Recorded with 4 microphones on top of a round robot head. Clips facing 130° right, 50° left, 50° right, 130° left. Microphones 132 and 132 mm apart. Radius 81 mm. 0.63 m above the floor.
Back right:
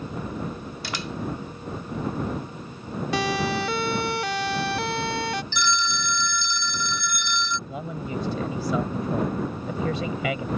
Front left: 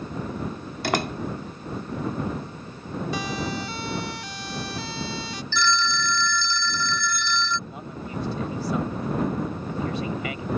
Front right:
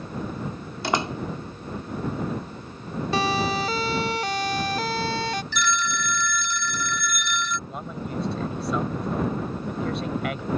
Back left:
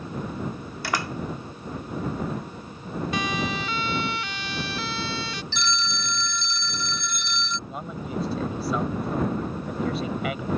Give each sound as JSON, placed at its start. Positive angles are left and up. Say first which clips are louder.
{"t": 0.8, "sound": "a door slam", "louder": "front left 9 dB, front right 4 dB", "azimuth_deg": 15}
{"t": 3.1, "sound": "a siren", "louder": "back right 7 dB, front right 6 dB", "azimuth_deg": -105}
{"t": 5.5, "sound": "a phone ringing", "louder": "front left 2 dB, front right 3 dB", "azimuth_deg": 165}
{"t": 7.7, "sound": "a man speaking", "louder": "back right 3 dB, even", "azimuth_deg": -140}